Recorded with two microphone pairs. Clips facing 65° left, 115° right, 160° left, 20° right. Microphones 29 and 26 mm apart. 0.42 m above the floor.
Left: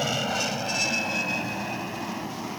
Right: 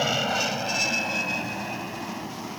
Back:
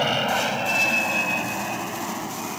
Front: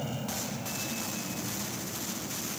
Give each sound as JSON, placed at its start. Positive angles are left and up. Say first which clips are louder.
{"t": 0.0, "sound": "an aircraft", "louder": "right 2 dB, back 14 dB", "azimuth_deg": 170}